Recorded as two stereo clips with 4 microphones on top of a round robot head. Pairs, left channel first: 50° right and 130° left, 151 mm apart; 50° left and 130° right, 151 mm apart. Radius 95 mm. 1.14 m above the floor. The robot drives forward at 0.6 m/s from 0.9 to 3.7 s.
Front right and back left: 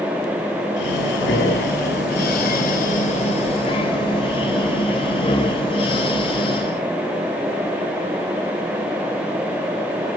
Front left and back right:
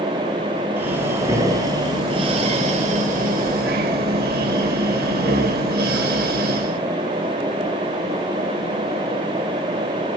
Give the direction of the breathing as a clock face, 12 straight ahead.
2 o'clock.